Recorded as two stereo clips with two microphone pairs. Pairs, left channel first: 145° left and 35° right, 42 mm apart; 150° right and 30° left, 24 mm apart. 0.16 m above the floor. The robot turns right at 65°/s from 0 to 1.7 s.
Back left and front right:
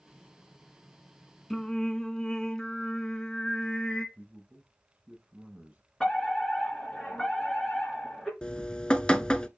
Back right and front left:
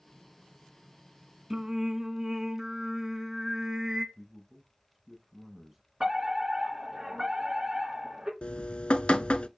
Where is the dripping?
145° right, 0.6 m.